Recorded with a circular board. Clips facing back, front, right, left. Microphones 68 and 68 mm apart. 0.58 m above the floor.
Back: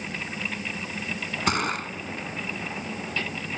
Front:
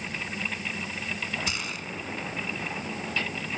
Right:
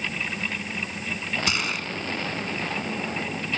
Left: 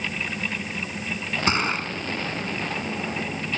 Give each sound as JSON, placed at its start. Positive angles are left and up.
{"t": 1.5, "sound": "a gunshot", "azimuth_deg": 145}